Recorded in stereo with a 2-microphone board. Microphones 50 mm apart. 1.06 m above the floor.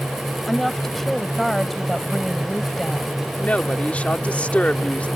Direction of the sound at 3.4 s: 25° left (ahead or behind).